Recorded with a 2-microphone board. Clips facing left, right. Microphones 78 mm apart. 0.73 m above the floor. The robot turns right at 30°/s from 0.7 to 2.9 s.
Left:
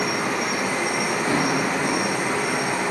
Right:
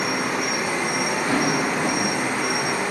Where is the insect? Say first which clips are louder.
Even; 170° right, 0.9 m; by 2.9 s 105° right, 0.9 m.